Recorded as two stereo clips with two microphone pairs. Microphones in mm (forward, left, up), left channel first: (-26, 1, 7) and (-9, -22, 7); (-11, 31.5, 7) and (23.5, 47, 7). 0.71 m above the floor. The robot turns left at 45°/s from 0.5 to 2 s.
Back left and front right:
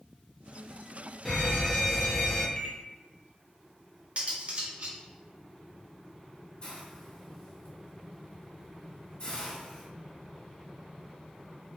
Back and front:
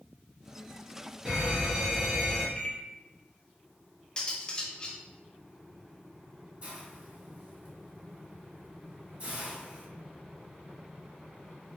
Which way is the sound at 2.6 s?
160° left.